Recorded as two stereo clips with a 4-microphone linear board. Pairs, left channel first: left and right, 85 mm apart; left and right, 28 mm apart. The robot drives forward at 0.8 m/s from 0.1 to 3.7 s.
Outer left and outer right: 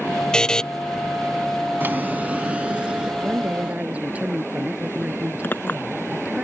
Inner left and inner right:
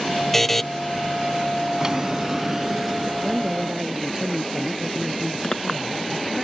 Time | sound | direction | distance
0.3 | a buzzer | 10° left (ahead or behind) | ?
1.8 | a drawer | 25° right (ahead or behind) | ?
3.2 | a woman speaking | 20° right (ahead or behind) | ?
5.4 | a clink | 25° left (ahead or behind) | ?